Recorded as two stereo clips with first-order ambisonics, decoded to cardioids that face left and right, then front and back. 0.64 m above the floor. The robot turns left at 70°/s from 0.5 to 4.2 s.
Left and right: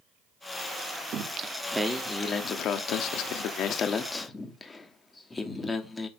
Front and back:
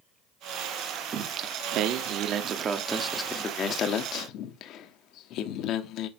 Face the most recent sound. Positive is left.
turn(degrees=20)